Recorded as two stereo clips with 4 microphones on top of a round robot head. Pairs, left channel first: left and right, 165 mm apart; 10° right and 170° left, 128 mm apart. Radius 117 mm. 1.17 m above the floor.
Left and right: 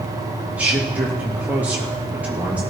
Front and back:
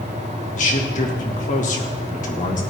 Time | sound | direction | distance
0.6 | a man speaking | 10° right | 2.5 m